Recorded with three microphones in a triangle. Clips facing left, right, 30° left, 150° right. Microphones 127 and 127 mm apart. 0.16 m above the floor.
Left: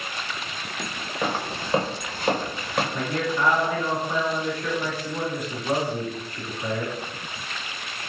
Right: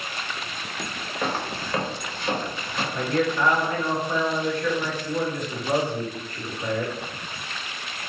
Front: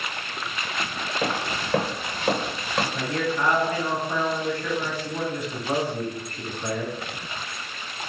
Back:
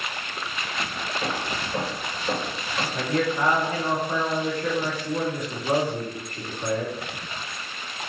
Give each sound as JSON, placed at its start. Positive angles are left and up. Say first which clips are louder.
{"t": 1.2, "sound": "footsteps", "louder": "left 1 dB, front 3 dB", "azimuth_deg": 5, "distance_m": 0.7}
{"t": 2.9, "sound": "a man speaking", "louder": "right 2 dB, back 2 dB", "azimuth_deg": 165, "distance_m": 1.4}